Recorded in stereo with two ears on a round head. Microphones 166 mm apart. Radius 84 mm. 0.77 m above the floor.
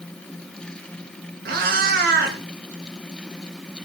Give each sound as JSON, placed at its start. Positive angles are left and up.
{"t": 1.4, "sound": "a cat meowing", "side_deg": -50, "distance_m": 4.0}